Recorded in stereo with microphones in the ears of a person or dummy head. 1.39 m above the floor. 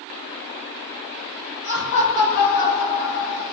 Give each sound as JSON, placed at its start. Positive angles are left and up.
{"t": 1.6, "sound": "laughter", "side_deg": 55, "distance_m": 1.7}